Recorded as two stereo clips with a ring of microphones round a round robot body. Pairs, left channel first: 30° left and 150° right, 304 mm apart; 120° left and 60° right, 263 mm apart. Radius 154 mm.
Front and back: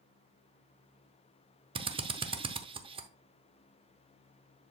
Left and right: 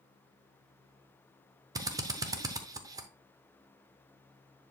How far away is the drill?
About 0.8 m.